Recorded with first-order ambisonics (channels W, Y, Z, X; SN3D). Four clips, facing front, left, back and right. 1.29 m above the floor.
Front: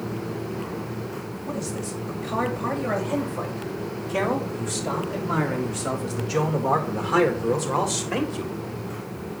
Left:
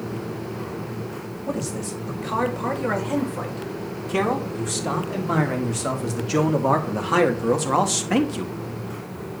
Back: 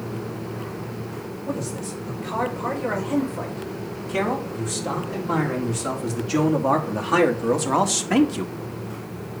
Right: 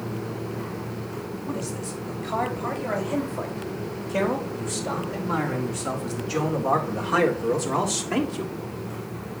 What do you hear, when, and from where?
1.5 s a man speaking: 100° left, 6.5 m; by 8.6 s 140° left, 2 m